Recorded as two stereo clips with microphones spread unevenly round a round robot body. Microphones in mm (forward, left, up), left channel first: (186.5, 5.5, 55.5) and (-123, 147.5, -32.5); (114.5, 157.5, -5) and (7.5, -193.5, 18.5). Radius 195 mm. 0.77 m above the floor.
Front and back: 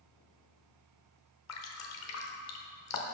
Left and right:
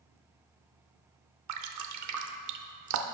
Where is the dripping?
65° right, 0.8 m.